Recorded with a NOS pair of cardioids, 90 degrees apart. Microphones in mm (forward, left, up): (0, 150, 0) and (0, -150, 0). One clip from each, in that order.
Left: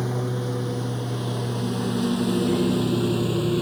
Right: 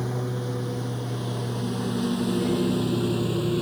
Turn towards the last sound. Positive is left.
turn(degrees=15)